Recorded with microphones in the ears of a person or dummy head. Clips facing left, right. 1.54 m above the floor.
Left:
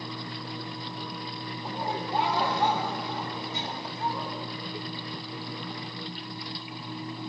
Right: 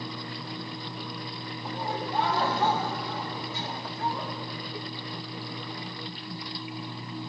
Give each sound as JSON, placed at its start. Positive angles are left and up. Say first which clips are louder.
{"t": 1.6, "sound": "laughter", "louder": "even", "side_deg": 15, "distance_m": 1.6}